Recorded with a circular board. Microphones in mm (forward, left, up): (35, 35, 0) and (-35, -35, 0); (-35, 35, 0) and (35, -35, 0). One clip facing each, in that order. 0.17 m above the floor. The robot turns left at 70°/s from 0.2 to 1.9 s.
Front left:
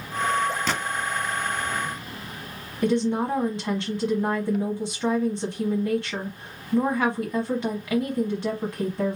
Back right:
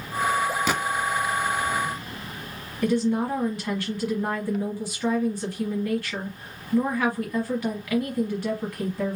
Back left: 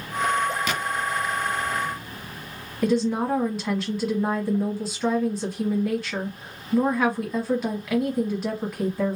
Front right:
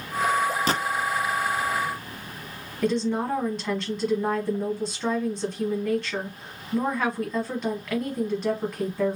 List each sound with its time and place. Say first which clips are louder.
0.7 s a gunshot: back right 2 dB, front right 3 dB; 55° right, 0.9 m; by 0.8 s 65° right, 0.9 m
2.8 s a woman speaking: even, back left 2 dB; 55° left, 1.2 m